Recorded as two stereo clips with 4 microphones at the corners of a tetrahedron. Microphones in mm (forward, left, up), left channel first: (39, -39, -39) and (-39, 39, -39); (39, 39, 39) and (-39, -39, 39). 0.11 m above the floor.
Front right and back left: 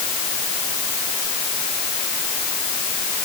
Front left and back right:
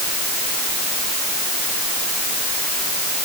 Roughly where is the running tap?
I don't hear a running tap.